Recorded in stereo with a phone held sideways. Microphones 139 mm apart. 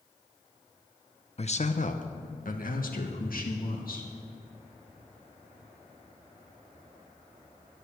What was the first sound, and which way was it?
A man speaking, 45° left (ahead or behind).